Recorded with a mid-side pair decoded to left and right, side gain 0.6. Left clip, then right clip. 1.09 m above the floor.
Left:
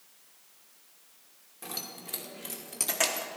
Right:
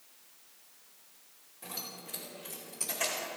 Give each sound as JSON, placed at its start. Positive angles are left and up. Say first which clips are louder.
{"t": 1.6, "sound": "keys jangling", "louder": "left 3 dB", "azimuth_deg": 40, "distance_m": 2.5}